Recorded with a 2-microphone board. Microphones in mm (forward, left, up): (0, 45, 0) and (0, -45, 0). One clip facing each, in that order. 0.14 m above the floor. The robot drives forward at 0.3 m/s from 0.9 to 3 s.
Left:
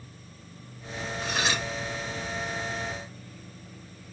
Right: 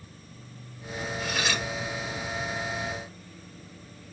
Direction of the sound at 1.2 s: 30° left (ahead or behind).